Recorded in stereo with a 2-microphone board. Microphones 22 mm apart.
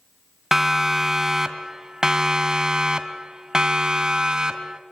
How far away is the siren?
About 2 m.